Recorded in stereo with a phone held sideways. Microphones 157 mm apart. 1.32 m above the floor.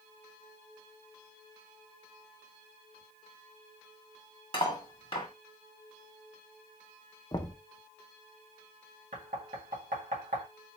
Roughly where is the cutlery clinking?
Left.